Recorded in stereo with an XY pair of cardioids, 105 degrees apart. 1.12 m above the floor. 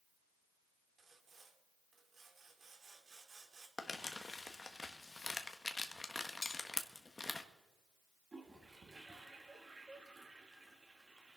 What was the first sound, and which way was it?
Sawing, 40° right.